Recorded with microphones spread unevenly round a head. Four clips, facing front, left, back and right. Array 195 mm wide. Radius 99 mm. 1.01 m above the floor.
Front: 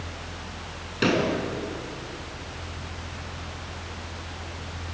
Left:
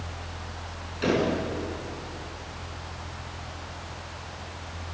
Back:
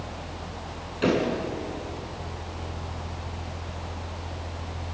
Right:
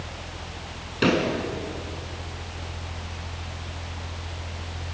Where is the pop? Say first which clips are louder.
Right 2 dB, even; 55° right, 6.5 m.